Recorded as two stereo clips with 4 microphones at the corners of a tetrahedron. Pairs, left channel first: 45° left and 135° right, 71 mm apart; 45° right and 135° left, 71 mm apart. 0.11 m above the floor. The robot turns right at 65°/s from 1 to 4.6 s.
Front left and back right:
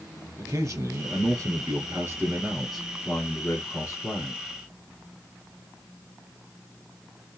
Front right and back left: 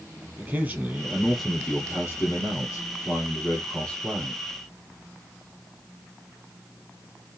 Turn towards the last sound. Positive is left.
turn(degrees=70)